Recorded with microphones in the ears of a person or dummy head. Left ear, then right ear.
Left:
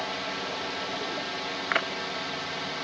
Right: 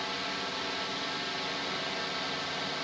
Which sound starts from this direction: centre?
A drone, at 0.0 s.